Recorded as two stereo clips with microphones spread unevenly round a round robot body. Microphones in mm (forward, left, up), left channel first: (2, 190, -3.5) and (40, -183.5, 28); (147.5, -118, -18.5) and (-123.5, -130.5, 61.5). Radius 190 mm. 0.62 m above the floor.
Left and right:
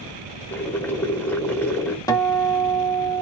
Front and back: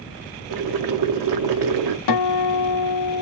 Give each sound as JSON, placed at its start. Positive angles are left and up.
{"t": 0.5, "sound": "boiling", "azimuth_deg": 180, "distance_m": 0.6}
{"t": 2.1, "sound": "a guitar", "azimuth_deg": 15, "distance_m": 0.6}